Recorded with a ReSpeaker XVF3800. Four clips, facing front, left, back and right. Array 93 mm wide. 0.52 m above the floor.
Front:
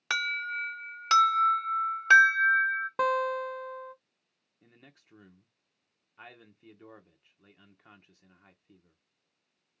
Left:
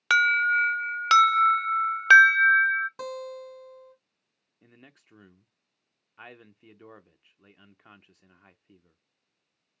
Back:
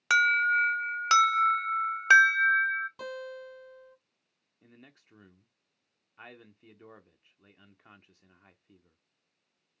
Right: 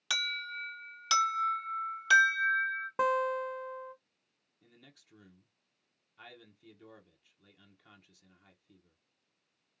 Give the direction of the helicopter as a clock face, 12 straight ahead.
I don't hear a helicopter.